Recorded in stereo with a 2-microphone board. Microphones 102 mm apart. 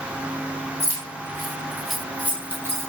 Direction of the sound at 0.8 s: 35° left (ahead or behind).